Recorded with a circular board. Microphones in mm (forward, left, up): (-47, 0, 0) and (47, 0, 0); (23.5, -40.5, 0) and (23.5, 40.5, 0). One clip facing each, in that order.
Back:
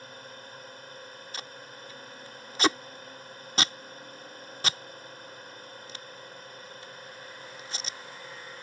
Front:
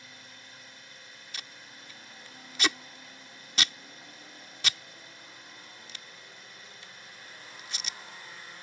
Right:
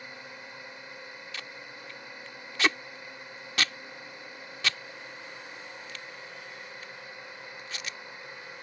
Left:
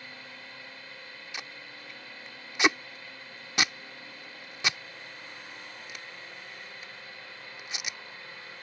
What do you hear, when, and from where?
0.0 s a drone: 155° right
1.3 s tape being pulled: 155° left